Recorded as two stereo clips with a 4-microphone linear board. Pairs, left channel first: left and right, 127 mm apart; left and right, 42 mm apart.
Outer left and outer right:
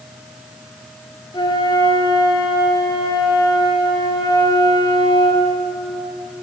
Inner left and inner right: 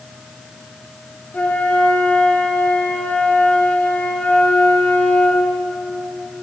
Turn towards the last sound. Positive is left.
turn(degrees=35)  # may be behind; listen again after turning